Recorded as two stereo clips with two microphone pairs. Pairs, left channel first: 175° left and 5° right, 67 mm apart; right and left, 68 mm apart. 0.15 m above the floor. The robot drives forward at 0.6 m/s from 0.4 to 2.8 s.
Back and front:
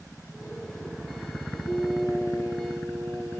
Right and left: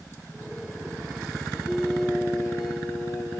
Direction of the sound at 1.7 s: 165° right.